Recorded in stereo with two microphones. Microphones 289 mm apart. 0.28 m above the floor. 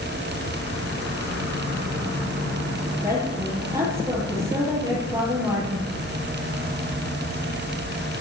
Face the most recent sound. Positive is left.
turn(degrees=-10)  # may be behind; listen again after turning